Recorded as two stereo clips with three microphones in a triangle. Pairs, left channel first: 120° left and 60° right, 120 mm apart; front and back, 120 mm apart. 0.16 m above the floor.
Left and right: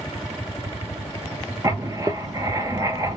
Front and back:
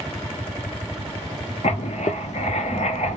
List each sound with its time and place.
1.6 s writing: straight ahead, 0.7 m